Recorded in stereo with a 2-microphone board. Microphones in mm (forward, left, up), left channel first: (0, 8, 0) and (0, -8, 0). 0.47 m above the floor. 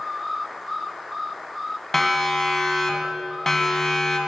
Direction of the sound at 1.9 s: 10° left (ahead or behind).